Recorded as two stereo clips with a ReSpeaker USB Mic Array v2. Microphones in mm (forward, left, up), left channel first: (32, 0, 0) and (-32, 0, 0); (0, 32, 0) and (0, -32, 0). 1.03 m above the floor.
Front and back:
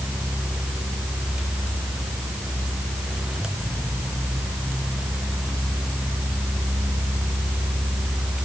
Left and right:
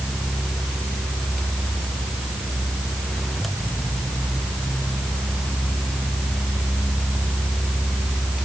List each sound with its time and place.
Only background noise.